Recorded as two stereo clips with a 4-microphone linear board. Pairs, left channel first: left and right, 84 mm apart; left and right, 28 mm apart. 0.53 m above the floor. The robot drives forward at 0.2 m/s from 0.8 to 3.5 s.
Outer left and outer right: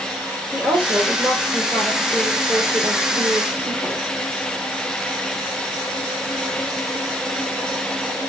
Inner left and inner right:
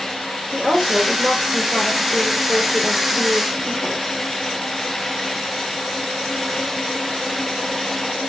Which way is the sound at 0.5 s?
20° right (ahead or behind).